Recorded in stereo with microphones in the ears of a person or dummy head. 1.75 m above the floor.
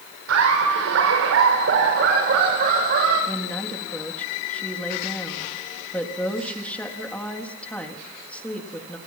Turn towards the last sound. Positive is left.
turn(degrees=10)  # may be behind; listen again after turning